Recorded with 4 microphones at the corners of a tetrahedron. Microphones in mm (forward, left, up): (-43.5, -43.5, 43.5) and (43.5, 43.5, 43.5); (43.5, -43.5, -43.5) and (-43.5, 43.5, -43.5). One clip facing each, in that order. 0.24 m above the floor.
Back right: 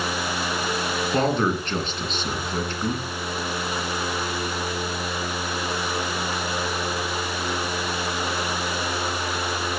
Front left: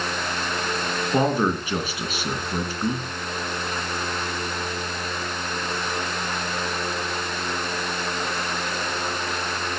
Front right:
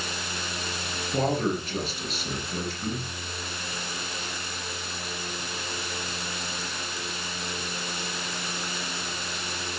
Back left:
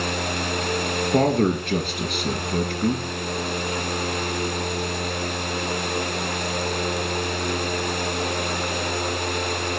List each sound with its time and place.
1.1 s a man speaking: 125° left, 3 m